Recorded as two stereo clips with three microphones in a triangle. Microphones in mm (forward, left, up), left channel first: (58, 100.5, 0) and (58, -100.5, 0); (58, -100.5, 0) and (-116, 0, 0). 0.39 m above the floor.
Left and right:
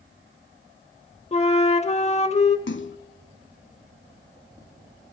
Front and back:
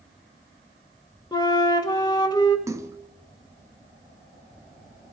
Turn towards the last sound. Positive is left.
turn(degrees=75)